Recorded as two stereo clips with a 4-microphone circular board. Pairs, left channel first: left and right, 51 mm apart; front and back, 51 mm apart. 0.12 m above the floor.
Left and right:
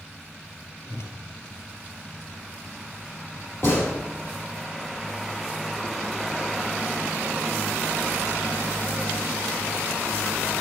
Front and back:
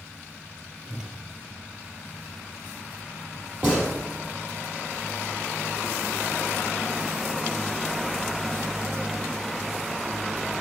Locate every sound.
0.9 s a whoosh: 105° left, 1.5 m
3.6 s a gunshot: 125° left, 4.5 m